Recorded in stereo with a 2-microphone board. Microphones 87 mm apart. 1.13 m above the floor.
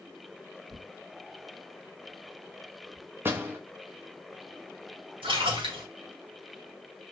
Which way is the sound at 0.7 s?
40° right (ahead or behind).